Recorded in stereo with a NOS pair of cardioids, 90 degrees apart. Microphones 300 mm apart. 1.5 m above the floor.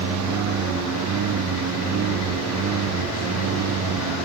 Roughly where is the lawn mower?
Ahead right.